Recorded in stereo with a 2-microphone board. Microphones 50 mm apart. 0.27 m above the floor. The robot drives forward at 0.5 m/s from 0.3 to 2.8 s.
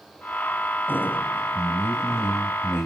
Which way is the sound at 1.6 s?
45° left (ahead or behind).